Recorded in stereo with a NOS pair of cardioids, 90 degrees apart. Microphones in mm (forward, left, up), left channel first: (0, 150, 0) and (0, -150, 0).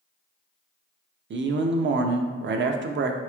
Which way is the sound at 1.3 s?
40° right.